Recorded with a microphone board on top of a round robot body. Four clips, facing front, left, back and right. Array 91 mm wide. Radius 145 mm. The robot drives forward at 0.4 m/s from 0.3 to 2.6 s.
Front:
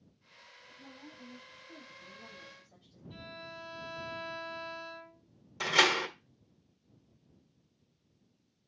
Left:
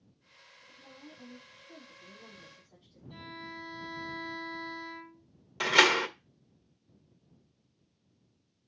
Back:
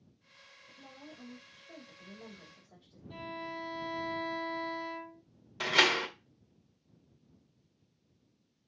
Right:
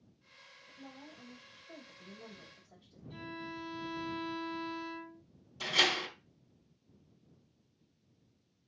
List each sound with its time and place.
0.7 s a woman speaking: 140° right, 3.5 m; by 3.0 s 150° right, 4 m
3.1 s a violin: 175° right, 5.5 m
5.6 s a door slam: 110° left, 1.7 m